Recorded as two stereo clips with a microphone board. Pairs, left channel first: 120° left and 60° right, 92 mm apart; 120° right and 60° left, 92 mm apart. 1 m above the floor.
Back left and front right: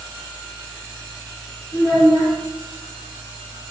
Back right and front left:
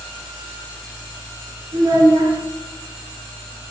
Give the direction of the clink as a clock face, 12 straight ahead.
No clink in this recording.